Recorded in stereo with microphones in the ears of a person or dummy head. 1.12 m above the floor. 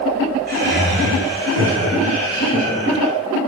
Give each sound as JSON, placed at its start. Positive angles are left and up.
{"t": 0.5, "sound": "laughter", "side_deg": -40, "distance_m": 1.0}